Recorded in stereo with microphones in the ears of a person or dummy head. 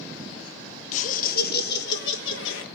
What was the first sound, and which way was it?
Laughter, 45° left (ahead or behind).